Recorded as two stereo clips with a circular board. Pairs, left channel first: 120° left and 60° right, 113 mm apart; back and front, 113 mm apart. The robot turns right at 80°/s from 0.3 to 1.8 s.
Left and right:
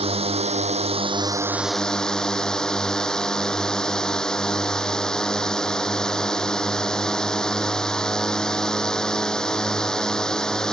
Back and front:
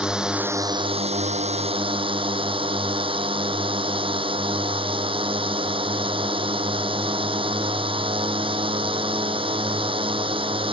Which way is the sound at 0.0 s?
85° right.